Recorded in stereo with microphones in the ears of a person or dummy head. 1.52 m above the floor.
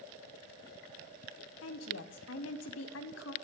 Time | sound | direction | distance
1.6 | a woman speaking | 75° left (ahead or behind) | 0.8 m